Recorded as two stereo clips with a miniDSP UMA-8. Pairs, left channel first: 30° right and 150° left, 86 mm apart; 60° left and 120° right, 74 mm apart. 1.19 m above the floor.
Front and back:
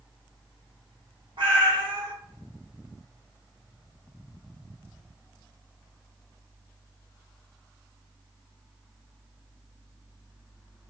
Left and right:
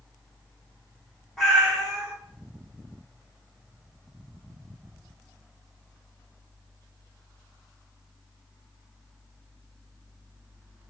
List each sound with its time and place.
1.4 s a cat meowing: 150° left, 1.2 m